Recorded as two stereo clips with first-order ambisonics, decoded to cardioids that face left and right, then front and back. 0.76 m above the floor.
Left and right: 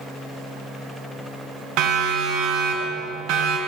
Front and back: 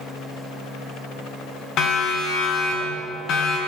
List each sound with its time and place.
1.8 s a siren: 50° right, 7 m